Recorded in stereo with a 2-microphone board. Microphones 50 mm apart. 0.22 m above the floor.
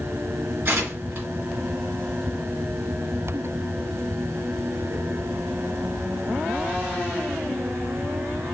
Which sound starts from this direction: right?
Tearing paper, at 0.7 s.